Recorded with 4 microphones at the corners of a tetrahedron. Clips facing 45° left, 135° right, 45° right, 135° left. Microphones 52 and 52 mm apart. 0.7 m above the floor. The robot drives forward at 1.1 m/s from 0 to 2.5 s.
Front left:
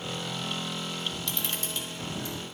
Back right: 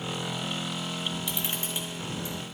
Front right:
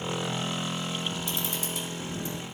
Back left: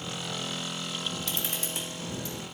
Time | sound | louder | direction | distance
1.3 | a camera shutter | back right 1 dB, front right 2 dB | 150° left | 1.7 m